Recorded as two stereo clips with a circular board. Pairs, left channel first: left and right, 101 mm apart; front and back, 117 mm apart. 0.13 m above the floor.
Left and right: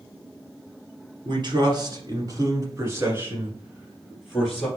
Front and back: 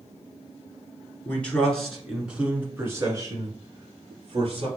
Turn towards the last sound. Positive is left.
turn(degrees=180)